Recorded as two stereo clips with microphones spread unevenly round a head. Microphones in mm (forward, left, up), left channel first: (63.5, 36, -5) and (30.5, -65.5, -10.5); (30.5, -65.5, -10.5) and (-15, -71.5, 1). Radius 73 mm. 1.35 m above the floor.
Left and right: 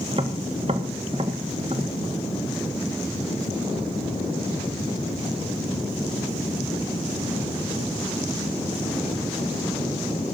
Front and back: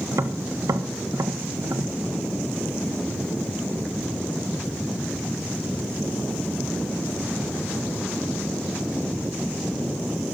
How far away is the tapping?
About 1.5 m.